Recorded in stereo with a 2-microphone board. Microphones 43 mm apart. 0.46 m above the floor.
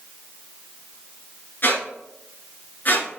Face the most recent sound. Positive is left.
turn(degrees=50)  # may be behind; listen again after turning